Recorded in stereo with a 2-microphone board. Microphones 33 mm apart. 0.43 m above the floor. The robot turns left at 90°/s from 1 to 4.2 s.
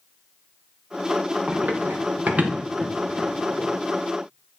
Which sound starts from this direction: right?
Running footsteps, at 1.5 s.